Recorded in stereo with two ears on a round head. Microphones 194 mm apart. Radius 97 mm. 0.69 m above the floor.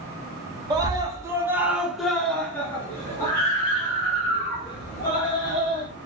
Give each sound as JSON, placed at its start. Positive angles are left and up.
{"t": 0.7, "sound": "a scream", "side_deg": -20, "distance_m": 1.2}